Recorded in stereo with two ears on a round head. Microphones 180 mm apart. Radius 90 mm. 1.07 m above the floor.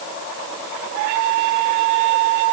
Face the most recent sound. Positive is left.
No sound to turn to.